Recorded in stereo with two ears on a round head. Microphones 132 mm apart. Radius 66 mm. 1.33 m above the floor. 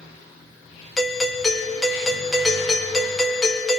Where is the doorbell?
Centre (ahead or behind), 1.4 m.